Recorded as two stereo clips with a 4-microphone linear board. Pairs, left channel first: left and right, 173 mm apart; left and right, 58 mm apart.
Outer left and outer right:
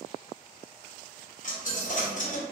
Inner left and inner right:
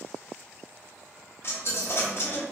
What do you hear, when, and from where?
1.4 s a dropped coin: 50° left (ahead or behind), 0.6 m